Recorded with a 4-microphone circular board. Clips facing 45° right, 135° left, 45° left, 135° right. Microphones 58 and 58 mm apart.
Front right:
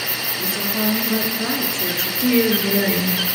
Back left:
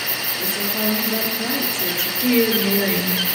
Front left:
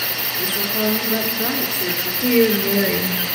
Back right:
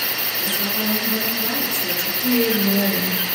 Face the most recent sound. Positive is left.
turn(degrees=20)